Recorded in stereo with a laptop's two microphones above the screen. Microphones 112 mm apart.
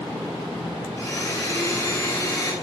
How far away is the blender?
About 1.0 m.